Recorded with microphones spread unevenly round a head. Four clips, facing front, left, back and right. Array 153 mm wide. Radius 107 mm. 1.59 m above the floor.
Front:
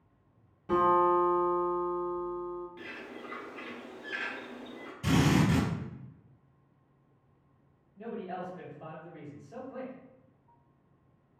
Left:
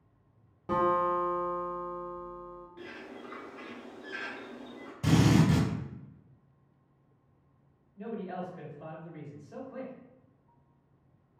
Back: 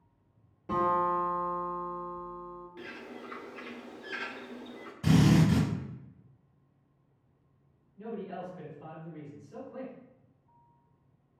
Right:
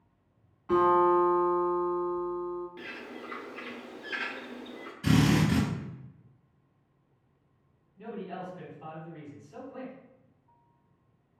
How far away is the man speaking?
About 1.7 m.